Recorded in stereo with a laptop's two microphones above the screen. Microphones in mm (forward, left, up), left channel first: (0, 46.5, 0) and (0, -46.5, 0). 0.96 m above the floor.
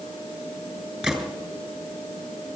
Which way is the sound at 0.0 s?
80° left.